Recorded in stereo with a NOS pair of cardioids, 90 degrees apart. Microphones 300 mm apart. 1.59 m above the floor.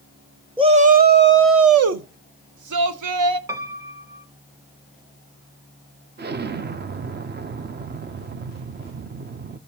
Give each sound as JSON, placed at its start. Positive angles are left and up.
{"t": 0.6, "sound": "a shout", "azimuth_deg": -15, "distance_m": 1.0}
{"t": 3.5, "sound": "a piano", "azimuth_deg": -10, "distance_m": 1.4}
{"t": 6.2, "sound": "an explosion", "azimuth_deg": -35, "distance_m": 0.7}